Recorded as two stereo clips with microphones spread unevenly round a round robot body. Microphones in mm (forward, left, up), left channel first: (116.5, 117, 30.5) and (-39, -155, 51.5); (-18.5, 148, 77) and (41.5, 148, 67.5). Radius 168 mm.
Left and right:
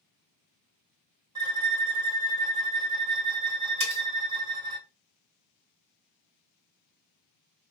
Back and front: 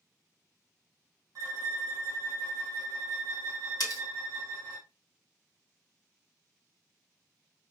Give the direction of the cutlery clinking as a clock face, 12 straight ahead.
6 o'clock.